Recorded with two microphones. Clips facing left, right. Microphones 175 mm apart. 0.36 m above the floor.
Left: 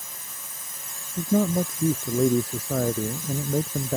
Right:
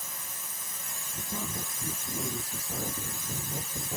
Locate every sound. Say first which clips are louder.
1.2 s a man speaking: left 17 dB; 85° left